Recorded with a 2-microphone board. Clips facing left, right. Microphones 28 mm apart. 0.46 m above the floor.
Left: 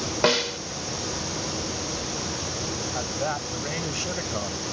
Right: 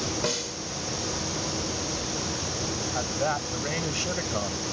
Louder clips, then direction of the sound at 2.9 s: Right 2 dB; 5° right (ahead or behind).